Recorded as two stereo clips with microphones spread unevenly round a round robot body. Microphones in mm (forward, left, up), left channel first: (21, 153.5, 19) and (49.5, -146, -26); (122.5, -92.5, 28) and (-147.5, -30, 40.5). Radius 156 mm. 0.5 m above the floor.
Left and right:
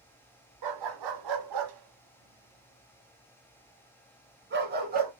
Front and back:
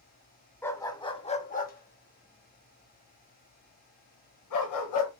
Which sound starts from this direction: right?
A dog barking, at 0.6 s.